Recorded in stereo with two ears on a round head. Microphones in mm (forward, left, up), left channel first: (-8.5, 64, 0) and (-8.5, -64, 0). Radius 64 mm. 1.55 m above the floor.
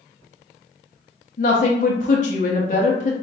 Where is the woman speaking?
55° left (ahead or behind), 1.0 m.